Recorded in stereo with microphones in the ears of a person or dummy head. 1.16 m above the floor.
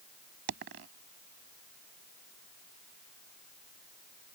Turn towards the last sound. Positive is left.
turn(degrees=-60)  # may be behind; listen again after turning